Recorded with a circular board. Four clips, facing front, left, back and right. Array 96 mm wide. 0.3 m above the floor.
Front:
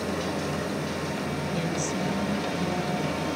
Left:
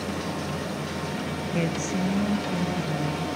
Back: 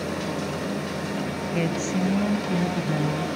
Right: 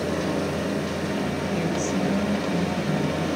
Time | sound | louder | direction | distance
1.5 | a woman speaking | even, back 6 dB | 150° left | 1.7 m